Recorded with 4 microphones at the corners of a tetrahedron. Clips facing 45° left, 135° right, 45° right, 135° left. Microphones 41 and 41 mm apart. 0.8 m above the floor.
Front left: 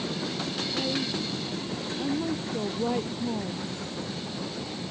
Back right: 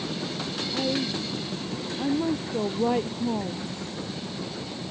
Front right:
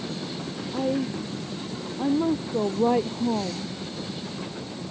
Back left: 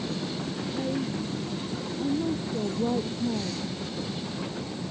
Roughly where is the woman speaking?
Ahead right.